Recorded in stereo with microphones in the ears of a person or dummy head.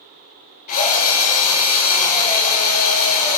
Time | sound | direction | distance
0.7 | a drill | 40° left (ahead or behind) | 3 m